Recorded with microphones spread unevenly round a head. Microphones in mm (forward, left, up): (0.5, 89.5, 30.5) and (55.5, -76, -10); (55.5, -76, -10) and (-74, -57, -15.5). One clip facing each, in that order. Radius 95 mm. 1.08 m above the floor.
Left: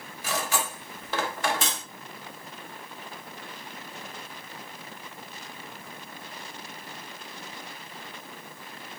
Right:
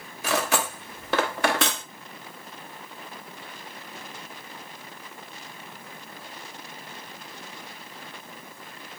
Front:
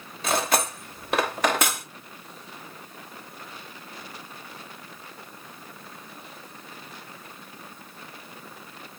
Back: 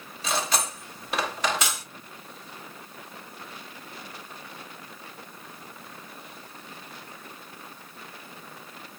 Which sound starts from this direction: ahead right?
Cutlery clinking, at 0.2 s.